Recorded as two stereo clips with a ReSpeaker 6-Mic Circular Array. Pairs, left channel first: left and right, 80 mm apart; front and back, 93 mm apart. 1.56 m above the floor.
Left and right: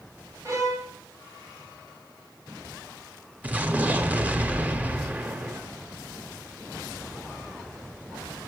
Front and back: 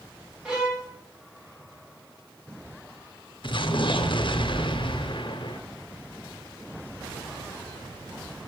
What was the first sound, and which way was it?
A violin, 100° right.